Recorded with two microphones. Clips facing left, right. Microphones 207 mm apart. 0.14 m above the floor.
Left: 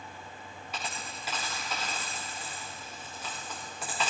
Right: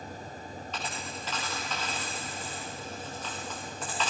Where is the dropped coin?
10° left (ahead or behind), 5.5 m.